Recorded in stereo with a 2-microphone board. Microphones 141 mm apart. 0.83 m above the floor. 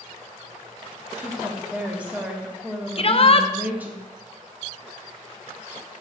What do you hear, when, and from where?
1.1 s a woman speaking: 10° right (ahead or behind), 1.4 m
3.0 s a shout: 45° left (ahead or behind), 0.6 m